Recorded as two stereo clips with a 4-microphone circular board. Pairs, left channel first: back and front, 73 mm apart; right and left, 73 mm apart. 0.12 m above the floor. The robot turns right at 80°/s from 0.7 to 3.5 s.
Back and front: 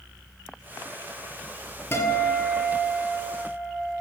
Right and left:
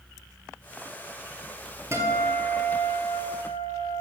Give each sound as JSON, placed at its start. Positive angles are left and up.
{"t": 1.9, "sound": "a guitar", "azimuth_deg": 130, "distance_m": 2.5}